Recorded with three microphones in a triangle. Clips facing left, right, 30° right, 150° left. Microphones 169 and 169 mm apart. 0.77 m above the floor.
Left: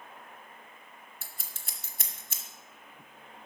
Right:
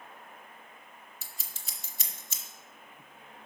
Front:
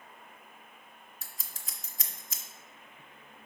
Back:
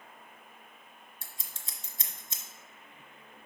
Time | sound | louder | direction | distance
1.2 | scissors | left 1 dB, even | 95° left | 0.8 m